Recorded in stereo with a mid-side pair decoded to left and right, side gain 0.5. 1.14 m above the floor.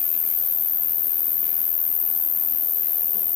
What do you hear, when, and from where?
0.0 s an insect: 55° left, 0.8 m